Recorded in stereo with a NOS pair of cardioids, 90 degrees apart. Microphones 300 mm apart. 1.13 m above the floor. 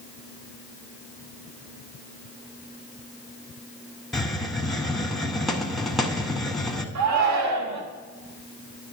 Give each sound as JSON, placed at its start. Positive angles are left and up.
{"t": 4.1, "sound": "a hiss", "azimuth_deg": 0, "distance_m": 0.9}
{"t": 7.0, "sound": "a shout", "azimuth_deg": -65, "distance_m": 1.5}